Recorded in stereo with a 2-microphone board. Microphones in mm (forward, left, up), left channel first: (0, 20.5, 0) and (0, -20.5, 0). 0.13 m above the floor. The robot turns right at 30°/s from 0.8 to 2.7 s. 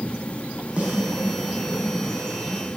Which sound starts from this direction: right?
A snare drum, at 0.8 s.